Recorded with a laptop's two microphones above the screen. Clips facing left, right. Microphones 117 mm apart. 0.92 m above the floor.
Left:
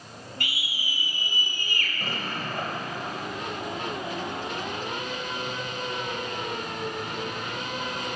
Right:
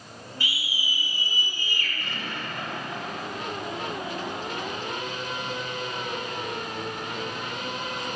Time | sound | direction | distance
0.4 | a scream | 60° left (ahead or behind) | 6 m
2.0 | an explosion | 45° left (ahead or behind) | 3 m